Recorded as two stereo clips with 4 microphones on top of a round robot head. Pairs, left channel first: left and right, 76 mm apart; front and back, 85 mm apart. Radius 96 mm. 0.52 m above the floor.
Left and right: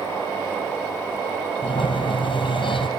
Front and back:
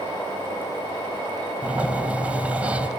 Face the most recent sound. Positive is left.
turn(degrees=110)